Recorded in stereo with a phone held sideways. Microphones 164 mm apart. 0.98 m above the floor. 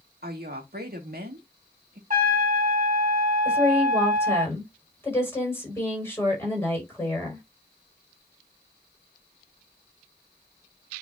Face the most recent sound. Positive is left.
turn(degrees=15)  # may be behind; listen again after turning